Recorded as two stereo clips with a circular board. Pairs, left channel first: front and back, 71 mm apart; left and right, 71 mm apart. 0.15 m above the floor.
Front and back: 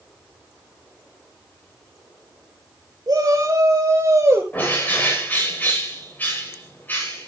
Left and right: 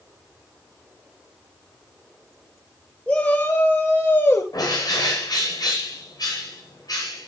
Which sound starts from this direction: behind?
A shout, at 3.1 s.